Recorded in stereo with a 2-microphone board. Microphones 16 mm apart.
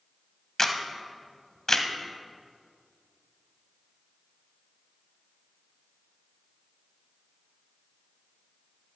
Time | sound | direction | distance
0.6 | a camera shutter | 35° left (ahead or behind) | 1.0 m